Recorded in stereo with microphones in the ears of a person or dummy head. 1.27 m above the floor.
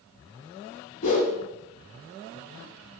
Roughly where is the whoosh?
Left.